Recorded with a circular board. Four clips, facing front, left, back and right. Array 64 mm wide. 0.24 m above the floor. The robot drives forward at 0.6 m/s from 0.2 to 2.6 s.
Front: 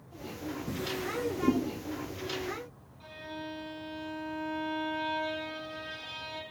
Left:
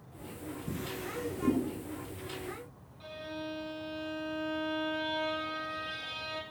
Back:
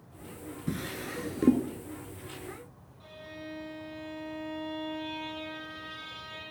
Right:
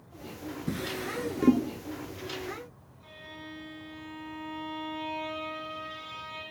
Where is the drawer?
125° right, 1.9 m; by 1.6 s 140° right, 2.5 m.